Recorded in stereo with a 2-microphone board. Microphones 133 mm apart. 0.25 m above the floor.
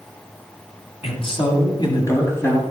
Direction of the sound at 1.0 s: 45° left (ahead or behind).